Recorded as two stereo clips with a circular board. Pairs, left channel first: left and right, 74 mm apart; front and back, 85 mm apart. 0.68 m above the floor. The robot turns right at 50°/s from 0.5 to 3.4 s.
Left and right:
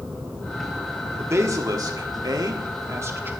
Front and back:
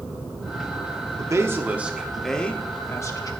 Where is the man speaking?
140° right, 1.1 m; by 3.3 s 35° right, 1.1 m.